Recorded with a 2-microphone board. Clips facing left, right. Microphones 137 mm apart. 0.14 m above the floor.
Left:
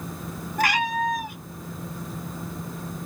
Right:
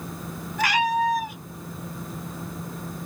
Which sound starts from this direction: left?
A cat meowing, at 0.6 s.